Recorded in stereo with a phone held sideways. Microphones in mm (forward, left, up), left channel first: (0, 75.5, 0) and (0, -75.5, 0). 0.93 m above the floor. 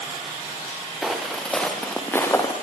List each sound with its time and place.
1.0 s footsteps: 5° right (ahead or behind), 5 m; by 2.5 s 20° left (ahead or behind), 4.5 m